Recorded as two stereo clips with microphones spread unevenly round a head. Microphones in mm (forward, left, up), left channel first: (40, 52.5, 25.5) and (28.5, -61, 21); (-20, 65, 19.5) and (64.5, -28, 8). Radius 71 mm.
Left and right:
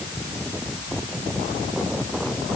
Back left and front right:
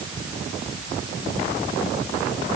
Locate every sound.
Only background noise.